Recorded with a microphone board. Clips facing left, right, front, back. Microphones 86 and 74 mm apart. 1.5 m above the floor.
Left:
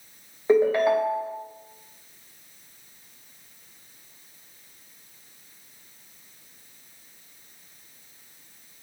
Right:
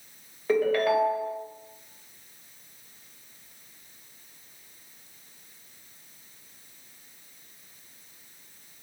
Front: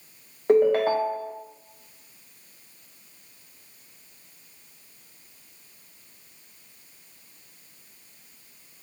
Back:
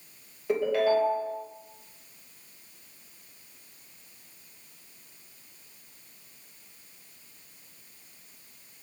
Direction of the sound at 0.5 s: 30° left.